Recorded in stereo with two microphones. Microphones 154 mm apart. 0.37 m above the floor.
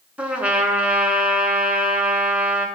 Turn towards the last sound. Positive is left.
turn(degrees=-10)  # may be behind; listen again after turning